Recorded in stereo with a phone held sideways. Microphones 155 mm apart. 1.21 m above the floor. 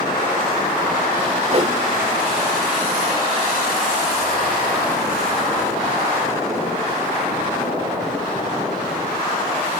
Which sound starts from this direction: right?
A whoosh, at 1.5 s.